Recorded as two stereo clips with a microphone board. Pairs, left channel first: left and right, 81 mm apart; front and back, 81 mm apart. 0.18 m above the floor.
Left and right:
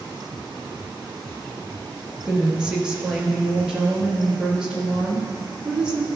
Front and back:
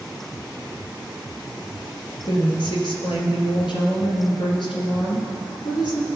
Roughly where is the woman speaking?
Ahead.